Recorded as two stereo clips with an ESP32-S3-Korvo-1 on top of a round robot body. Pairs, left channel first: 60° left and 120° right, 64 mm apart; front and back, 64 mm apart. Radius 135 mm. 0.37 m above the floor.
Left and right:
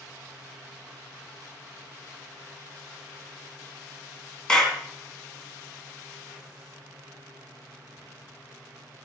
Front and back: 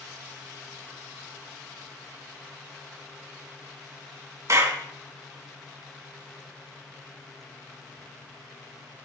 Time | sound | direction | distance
4.5 | a clap | 140° left | 3 m